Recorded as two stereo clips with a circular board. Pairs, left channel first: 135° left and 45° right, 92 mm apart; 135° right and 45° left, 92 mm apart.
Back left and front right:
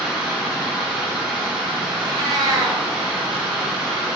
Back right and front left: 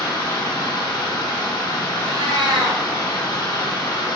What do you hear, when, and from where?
0.0 s running water: 120° right, 0.8 m
2.0 s a cat meowing: 5° left, 0.8 m